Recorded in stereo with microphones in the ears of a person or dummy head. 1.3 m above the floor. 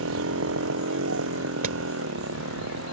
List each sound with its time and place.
0.0 s a motorcycle: 80° right
1.6 s hammering: 45° right (ahead or behind)